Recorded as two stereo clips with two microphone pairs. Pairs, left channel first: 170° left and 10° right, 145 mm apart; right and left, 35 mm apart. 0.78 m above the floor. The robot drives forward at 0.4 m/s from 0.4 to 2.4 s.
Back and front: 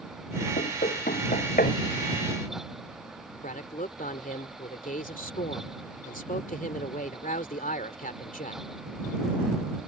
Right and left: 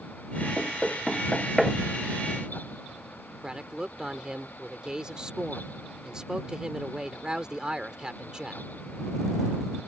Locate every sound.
0.6 s knocking: straight behind
3.4 s a man speaking: 155° left